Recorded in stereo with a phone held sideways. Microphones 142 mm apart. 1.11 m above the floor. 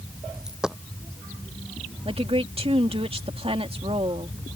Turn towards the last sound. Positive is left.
turn(degrees=-45)  # may be behind; listen again after turning